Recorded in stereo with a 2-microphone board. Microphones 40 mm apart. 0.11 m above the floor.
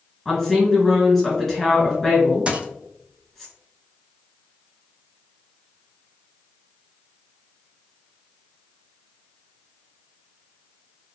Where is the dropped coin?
30° right (ahead or behind), 0.5 m.